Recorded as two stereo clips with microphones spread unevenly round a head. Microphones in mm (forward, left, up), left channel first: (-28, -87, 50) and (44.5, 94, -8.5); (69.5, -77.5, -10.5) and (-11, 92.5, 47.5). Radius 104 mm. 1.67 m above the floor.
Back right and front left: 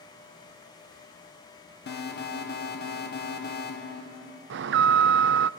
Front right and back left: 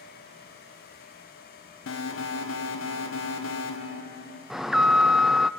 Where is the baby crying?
I don't hear a baby crying.